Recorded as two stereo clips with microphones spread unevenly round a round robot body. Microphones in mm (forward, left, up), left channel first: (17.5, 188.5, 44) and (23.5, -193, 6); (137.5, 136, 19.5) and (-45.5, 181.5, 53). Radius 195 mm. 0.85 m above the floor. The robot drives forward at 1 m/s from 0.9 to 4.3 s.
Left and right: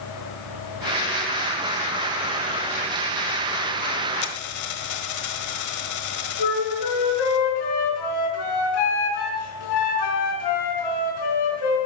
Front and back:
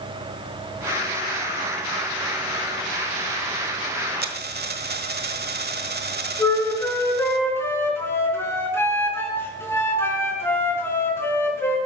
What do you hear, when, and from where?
4.2 s a dropped coin: 135° left, 1.5 m
6.4 s a flute: 65° left, 4.5 m